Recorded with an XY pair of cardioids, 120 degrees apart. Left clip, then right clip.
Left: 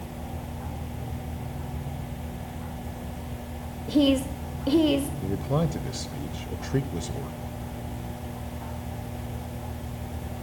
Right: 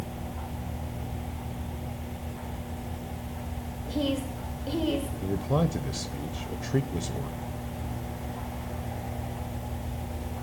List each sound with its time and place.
3.9 s a woman speaking: 45° left, 0.8 m
5.2 s a man speaking: straight ahead, 0.6 m